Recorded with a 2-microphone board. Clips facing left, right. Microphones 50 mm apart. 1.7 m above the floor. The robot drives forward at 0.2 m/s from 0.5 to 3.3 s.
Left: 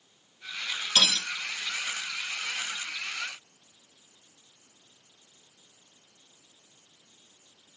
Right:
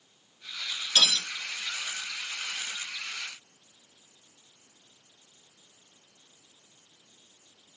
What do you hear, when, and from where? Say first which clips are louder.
0.9 s cutlery clinking: even; 20° left (ahead or behind), 1.2 m